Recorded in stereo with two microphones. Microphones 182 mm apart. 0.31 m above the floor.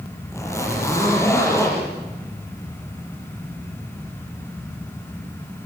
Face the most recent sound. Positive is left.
turn(degrees=15)  # may be behind; listen again after turning